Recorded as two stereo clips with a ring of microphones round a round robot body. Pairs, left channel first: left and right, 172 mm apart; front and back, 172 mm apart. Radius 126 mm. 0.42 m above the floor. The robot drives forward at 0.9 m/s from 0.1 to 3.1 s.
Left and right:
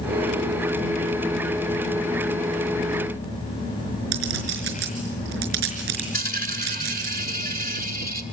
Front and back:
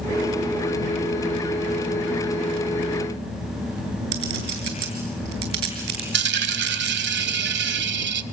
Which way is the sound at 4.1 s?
140° right.